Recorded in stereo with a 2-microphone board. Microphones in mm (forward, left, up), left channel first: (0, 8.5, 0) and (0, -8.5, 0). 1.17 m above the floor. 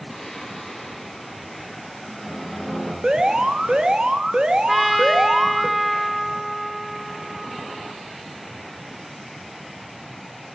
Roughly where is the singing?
Left.